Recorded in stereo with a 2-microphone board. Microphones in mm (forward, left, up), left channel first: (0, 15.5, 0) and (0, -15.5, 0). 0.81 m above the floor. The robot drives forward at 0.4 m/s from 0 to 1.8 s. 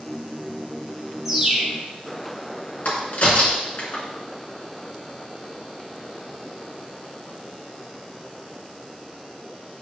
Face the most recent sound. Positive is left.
turn(degrees=60)  # may be behind; listen again after turning